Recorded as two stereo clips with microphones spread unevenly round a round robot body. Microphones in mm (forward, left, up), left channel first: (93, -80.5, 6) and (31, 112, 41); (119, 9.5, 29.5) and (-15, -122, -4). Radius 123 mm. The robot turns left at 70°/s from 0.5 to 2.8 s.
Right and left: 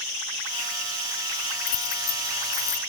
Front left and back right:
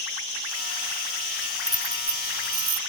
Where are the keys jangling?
65° right; by 2.8 s 140° right.